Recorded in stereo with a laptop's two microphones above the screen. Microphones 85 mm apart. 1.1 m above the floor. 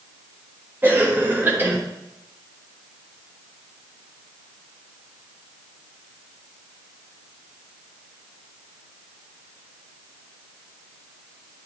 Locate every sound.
0.8 s a cough: 25° right (ahead or behind), 1.4 m